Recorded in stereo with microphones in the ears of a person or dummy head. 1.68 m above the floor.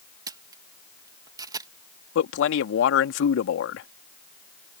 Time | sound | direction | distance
0.3 | a camera shutter | 20° right (ahead or behind) | ?
2.1 | a man speaking | 60° left (ahead or behind) | ?